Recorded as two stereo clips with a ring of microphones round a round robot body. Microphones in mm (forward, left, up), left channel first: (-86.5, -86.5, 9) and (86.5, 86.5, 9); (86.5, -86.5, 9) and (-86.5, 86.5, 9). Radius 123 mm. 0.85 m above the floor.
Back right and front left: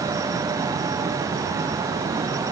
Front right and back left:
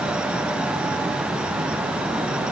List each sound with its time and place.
Only background noise.